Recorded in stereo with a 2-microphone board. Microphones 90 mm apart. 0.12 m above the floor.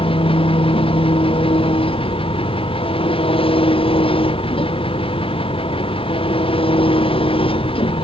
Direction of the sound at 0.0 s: 85° left.